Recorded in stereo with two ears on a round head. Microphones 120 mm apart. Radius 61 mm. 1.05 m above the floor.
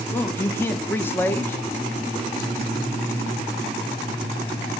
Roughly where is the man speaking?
Centre.